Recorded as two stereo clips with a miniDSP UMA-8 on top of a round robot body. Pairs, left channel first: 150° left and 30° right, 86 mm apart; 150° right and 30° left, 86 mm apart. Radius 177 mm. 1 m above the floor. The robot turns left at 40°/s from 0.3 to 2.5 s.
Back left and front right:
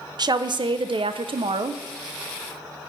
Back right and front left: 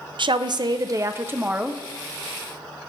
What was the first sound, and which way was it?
A woman speaking, 5° left.